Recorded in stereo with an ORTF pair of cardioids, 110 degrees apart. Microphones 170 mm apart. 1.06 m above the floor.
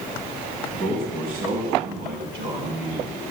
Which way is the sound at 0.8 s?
50° right.